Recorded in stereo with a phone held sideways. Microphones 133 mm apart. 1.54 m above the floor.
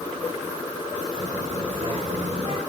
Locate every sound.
1.2 s a child speaking: 55° right (ahead or behind), 6 m; by 2.6 s 45° right (ahead or behind), 7.5 m